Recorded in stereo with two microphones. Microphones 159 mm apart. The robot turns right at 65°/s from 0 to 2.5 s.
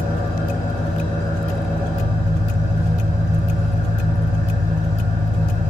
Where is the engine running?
75° left, 1.5 m; by 5.7 s 120° right, 1.5 m.